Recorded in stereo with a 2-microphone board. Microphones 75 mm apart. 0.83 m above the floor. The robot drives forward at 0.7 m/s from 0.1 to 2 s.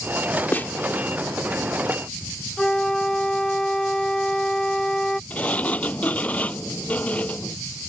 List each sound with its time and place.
0.5 s a snare drum: 25° left (ahead or behind); by 0.7 s 30° left (ahead or behind)
2.6 s a flute: 10° left (ahead or behind)
5.3 s a sliding door: 20° left (ahead or behind)